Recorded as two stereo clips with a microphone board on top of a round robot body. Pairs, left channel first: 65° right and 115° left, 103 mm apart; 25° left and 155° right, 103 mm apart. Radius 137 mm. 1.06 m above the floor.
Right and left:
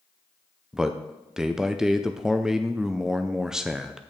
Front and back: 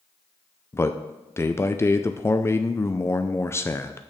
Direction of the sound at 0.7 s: 35° left.